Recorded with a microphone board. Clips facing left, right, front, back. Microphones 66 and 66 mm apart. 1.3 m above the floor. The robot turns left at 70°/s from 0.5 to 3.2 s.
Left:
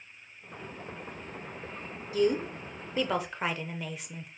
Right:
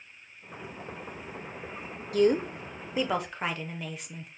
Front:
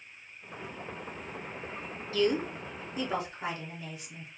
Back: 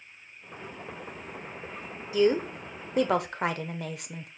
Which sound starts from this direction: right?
A woman speaking, at 2.1 s.